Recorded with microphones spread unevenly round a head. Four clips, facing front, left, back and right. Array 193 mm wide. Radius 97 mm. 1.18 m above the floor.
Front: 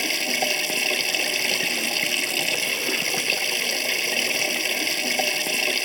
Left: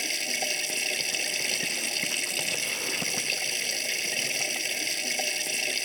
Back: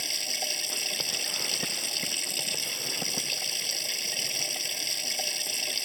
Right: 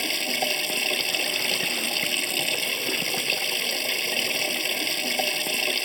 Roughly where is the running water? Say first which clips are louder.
Right 6 dB, front 12 dB; ahead right.